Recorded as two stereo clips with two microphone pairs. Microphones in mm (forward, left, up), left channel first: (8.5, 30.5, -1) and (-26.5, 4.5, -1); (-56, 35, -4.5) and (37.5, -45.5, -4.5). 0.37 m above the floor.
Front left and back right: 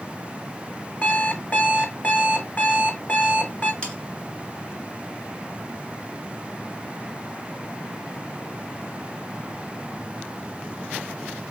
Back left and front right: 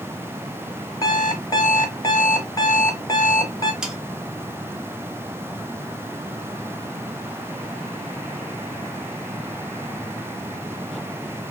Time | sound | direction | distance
1.0 | an alarm clock | 80° left | 1.1 m
3.8 | sawing | 40° left | 1.2 m